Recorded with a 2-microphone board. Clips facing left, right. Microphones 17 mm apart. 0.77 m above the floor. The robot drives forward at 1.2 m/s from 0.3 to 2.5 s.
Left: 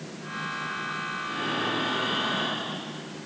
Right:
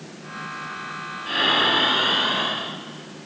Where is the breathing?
75° right (ahead or behind), 1.0 m; by 2.8 s 35° right (ahead or behind), 1.5 m.